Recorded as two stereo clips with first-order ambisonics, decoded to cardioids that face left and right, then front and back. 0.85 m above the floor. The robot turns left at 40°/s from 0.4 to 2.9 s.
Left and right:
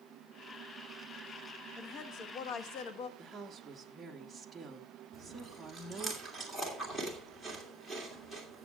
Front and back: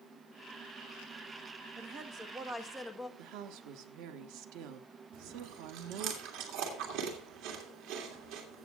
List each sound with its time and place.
1.8 s a woman speaking: 135° left, 1.1 m; by 3.1 s 90° left, 1.1 m
3.2 s a woman speaking: 170° right, 1.1 m
5.1 s chewing: 170° left, 2.5 m